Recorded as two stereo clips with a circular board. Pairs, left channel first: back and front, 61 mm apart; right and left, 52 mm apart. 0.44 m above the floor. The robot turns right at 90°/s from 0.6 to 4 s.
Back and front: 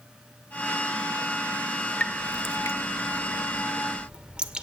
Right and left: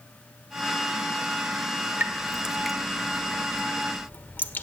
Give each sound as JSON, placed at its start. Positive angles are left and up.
{"t": 2.0, "sound": "dripping", "azimuth_deg": 120, "distance_m": 1.0}